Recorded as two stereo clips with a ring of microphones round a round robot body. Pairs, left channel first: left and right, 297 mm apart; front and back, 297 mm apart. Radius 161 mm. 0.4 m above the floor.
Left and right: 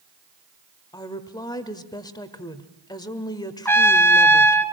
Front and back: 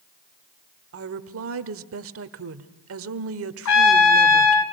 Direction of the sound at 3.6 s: 10° left.